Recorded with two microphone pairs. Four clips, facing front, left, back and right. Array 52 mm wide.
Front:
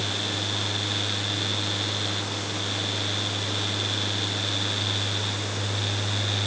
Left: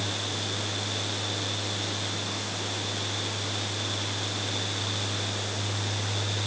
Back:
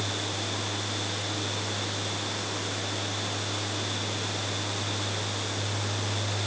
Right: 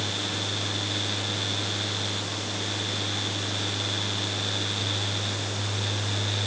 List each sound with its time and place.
Only background noise.